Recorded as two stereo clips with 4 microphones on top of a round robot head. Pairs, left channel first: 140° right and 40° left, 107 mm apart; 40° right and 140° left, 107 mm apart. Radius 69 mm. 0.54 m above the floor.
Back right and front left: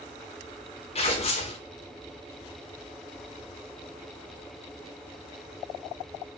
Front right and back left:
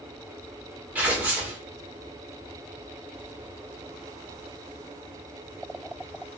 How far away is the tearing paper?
About 1.4 m.